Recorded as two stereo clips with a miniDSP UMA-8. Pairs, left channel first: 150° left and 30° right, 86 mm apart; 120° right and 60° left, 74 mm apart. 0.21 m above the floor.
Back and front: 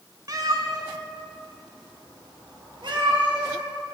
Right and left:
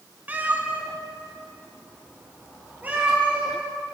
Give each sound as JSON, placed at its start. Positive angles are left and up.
{"t": 0.3, "sound": "a cat meowing", "azimuth_deg": 0, "distance_m": 1.0}